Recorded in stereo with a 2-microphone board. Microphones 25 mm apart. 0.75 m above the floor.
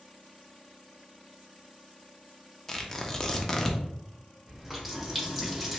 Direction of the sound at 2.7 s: 20° left (ahead or behind).